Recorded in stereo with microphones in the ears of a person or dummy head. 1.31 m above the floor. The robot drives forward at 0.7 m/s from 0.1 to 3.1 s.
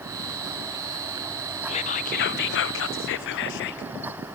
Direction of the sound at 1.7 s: 35° left (ahead or behind).